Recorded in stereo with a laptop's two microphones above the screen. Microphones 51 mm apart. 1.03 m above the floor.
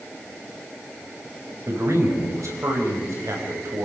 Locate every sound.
1.7 s a man speaking: 85° right, 6.5 m